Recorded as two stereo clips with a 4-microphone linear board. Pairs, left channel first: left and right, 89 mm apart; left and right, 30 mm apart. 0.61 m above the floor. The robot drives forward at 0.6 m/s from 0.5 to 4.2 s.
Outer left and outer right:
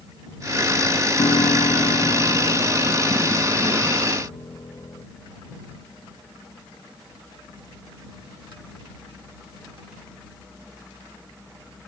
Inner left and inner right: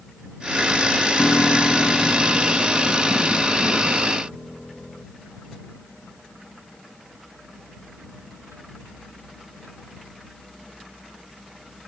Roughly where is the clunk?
I don't hear a clunk.